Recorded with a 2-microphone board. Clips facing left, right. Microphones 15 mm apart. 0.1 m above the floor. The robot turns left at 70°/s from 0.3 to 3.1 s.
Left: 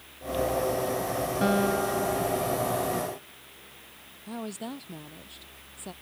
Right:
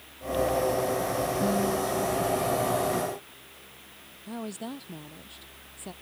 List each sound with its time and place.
1.4 s a guitar: 75° left; by 3.2 s 45° right
4.3 s a woman speaking: 5° left (ahead or behind)